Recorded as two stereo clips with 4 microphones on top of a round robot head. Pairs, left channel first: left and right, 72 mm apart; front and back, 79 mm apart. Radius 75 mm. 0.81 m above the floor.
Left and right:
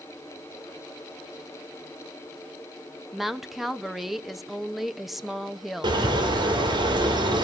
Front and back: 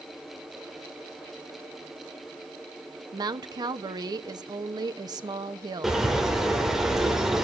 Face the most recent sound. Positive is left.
turn(degrees=-95)